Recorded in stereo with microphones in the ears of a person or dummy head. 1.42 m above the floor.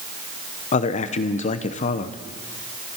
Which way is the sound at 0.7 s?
40° left (ahead or behind).